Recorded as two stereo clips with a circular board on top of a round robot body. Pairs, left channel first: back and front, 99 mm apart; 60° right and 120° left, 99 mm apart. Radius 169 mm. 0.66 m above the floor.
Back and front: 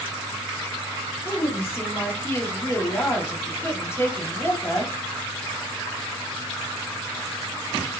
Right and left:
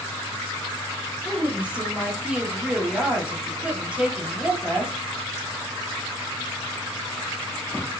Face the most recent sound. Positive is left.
turn(degrees=-175)